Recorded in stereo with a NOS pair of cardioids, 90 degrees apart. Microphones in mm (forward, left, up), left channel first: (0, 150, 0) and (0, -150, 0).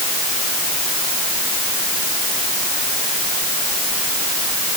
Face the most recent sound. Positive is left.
No sound to turn to.